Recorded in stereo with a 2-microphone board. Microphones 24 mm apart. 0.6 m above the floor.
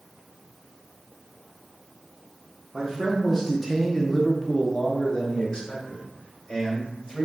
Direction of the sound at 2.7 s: 20° right (ahead or behind).